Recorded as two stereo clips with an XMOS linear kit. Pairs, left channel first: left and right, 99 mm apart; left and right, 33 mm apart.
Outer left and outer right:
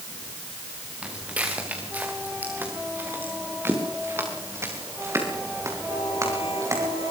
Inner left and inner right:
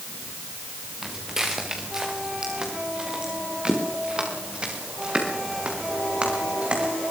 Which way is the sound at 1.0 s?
15° right (ahead or behind).